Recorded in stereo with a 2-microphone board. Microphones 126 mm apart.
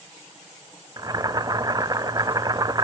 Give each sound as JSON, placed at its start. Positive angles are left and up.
{"t": 1.0, "sound": "boiling", "side_deg": -30, "distance_m": 0.5}